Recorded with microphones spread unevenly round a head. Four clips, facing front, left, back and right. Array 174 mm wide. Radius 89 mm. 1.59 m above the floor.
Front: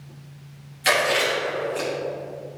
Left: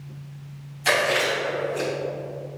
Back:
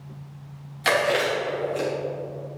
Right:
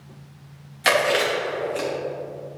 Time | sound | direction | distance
0.8 | chewing | 95° right | 3 m